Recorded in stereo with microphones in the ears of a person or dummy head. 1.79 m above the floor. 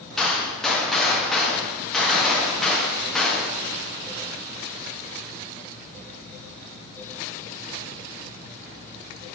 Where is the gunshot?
Centre (ahead or behind), 1.0 m.